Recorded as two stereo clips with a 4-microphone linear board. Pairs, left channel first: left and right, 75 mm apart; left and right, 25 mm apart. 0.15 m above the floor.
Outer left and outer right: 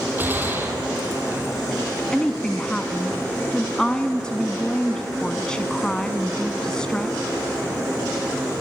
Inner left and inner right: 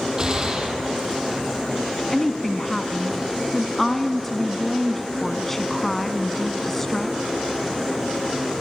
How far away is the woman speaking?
About 1.1 m.